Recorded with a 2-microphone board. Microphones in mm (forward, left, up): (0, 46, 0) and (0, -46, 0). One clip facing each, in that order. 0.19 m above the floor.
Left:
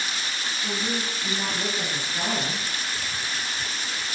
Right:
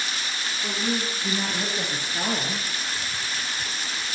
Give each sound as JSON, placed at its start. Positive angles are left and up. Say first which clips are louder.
{"t": 0.6, "sound": "a woman speaking", "louder": "right 2 dB", "side_deg": -20, "distance_m": 6.0}